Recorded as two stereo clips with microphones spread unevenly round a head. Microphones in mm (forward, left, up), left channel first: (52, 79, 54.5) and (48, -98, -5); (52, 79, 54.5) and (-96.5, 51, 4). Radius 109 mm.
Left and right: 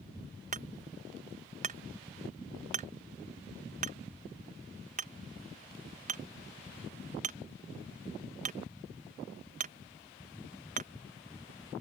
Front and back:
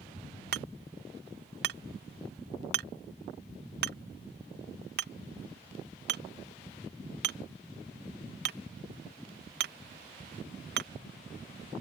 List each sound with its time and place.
0.5 s hammering: 150° right